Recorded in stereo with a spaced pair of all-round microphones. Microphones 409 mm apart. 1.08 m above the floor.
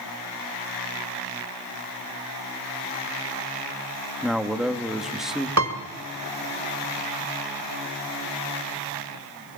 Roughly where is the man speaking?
Centre.